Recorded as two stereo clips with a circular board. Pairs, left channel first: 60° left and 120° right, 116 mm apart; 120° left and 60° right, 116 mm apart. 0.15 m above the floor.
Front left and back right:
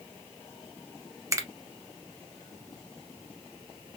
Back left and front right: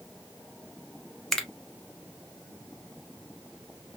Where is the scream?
I don't hear a scream.